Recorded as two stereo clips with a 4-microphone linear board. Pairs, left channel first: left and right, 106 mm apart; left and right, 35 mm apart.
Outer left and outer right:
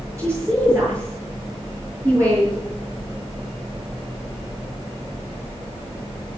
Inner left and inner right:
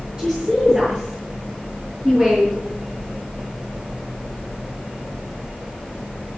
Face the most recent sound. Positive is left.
turn(degrees=-25)  # may be behind; listen again after turning